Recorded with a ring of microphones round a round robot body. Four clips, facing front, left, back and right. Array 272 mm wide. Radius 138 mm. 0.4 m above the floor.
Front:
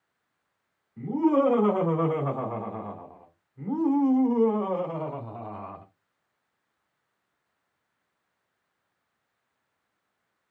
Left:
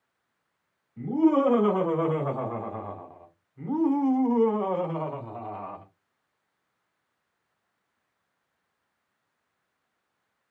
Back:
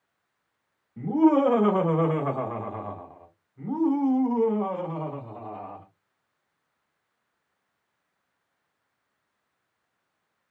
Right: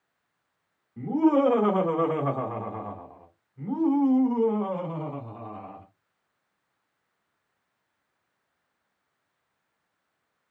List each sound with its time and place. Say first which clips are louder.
1.0 s laughter: even, back 3 dB; 140° right, 1.6 m; by 5.8 s 55° left, 1.8 m